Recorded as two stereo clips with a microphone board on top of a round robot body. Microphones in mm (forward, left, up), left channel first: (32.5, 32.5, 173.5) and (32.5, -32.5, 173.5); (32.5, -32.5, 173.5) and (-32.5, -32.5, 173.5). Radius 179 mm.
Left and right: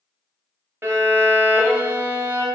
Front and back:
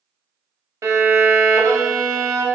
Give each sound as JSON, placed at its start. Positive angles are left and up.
{"t": 0.8, "sound": "a violin", "azimuth_deg": -140, "distance_m": 0.7}